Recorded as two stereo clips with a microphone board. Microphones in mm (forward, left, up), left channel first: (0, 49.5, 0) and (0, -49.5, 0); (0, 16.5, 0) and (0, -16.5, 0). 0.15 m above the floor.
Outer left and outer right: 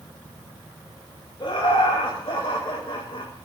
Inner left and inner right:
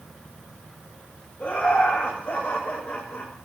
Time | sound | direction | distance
1.4 | laughter | 60° left (ahead or behind) | 8.5 m